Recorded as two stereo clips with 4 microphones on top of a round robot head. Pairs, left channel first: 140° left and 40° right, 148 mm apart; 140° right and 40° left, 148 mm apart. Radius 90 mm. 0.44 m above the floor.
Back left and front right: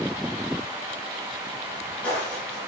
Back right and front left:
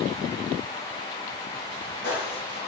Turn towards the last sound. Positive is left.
turn(degrees=-140)